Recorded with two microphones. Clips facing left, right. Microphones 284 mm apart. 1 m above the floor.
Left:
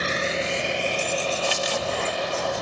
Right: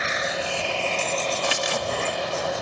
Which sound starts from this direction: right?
Crumpling, at 1.4 s.